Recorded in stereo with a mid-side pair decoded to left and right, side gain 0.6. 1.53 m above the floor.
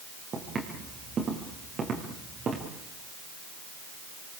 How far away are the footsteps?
About 8 m.